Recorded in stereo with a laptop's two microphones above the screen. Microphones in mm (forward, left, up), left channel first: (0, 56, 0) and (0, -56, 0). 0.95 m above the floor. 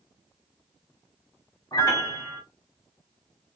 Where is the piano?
35° left (ahead or behind), 0.8 m.